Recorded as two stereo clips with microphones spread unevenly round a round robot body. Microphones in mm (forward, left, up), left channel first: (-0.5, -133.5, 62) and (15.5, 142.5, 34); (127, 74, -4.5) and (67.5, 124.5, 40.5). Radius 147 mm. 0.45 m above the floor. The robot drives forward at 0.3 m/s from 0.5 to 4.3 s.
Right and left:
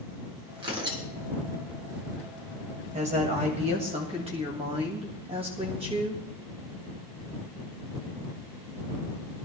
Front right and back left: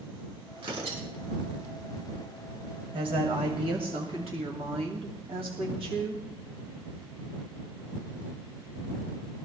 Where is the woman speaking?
150° left, 1.9 m; by 6.2 s 155° left, 2 m.